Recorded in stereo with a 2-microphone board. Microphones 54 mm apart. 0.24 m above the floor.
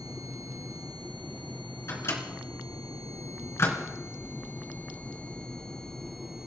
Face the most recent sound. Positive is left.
turn(degrees=55)  # may be behind; listen again after turning